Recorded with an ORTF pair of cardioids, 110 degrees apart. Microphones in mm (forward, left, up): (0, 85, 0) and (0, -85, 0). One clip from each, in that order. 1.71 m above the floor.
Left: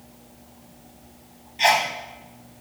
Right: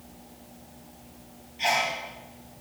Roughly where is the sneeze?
Ahead left.